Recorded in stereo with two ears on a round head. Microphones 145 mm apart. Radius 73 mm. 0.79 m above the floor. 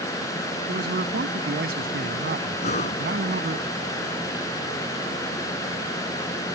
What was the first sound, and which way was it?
A man speaking, 60° right (ahead or behind).